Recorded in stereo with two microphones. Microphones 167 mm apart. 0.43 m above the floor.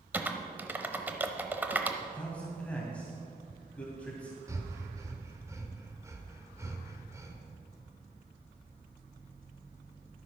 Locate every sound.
0.1 s typing on a keyboard: 10° right (ahead or behind), 0.8 m
2.0 s a man speaking: 10° left (ahead or behind), 2.5 m
4.5 s breathing: 15° right (ahead or behind), 1.2 m